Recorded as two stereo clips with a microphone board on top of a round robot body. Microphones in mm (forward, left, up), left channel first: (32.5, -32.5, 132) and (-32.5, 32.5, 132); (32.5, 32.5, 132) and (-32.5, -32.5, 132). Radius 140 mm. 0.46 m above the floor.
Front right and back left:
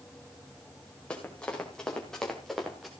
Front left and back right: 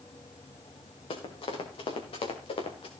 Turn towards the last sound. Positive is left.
turn(degrees=45)